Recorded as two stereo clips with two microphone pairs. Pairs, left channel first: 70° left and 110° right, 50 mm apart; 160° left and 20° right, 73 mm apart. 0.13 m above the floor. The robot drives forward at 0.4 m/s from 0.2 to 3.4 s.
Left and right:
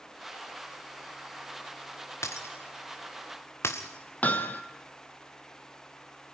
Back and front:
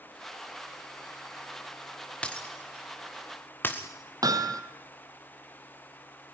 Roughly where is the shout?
No shout in this recording.